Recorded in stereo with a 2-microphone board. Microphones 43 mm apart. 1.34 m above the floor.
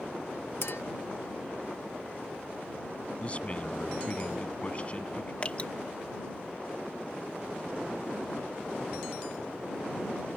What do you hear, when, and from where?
0.6 s a clink: 65° left (ahead or behind)
3.2 s a man speaking: 30° left (ahead or behind)
5.4 s dripping: 30° left (ahead or behind)